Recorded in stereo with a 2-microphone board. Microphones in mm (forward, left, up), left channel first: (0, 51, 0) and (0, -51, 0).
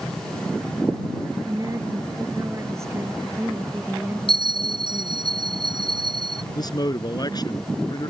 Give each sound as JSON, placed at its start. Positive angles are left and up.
{"t": 1.4, "sound": "a woman speaking", "side_deg": -35}
{"t": 4.3, "sound": "a bell", "side_deg": 65}
{"t": 6.5, "sound": "a man speaking", "side_deg": 40}